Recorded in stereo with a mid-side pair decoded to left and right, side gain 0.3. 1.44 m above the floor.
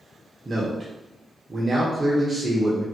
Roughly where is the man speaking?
Ahead right.